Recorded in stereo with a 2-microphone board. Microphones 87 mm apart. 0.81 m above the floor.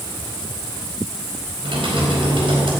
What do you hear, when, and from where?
1.6 s typing on a keyboard: 75° right (ahead or behind), 4.5 m